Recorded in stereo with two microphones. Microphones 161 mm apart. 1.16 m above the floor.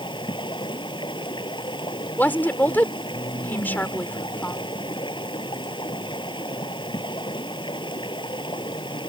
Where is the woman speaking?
10° left (ahead or behind).